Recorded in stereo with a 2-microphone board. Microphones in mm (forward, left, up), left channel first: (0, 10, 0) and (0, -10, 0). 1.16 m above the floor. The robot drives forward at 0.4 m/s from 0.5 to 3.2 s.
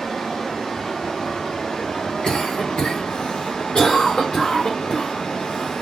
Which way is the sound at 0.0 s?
40° left (ahead or behind).